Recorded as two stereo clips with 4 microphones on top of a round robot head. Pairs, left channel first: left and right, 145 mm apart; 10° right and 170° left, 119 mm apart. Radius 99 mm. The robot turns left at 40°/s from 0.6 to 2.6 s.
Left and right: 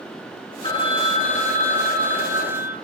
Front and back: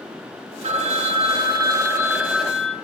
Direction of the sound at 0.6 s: 145° left.